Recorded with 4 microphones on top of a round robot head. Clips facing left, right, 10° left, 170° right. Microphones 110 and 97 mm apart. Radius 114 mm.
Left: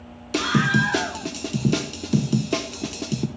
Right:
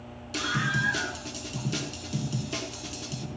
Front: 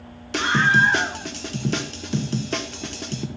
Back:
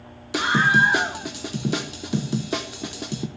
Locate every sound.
0.3 s a scream: 110° left, 1.4 m